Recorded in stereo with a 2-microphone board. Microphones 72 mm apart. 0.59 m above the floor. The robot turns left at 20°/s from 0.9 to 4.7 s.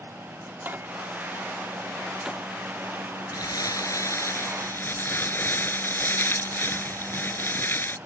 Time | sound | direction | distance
0.5 | a microwave | 30° right (ahead or behind) | ?
3.3 | crumpling | 60° left (ahead or behind) | ?